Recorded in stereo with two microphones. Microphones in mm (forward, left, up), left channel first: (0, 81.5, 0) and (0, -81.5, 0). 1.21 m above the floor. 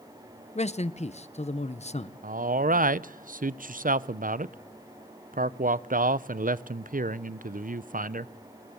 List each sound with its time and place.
0.6 s a man speaking: 45° left (ahead or behind), 0.8 m
2.2 s a man speaking: 60° right (ahead or behind), 0.5 m